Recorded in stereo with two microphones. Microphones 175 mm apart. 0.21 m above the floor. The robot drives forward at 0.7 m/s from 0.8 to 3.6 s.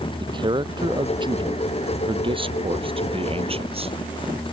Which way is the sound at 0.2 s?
25° right (ahead or behind).